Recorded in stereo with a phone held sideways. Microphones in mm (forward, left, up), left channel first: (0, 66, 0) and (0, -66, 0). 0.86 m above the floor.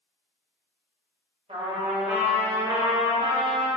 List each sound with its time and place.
1.5 s a trumpet: 50° right (ahead or behind), 1.4 m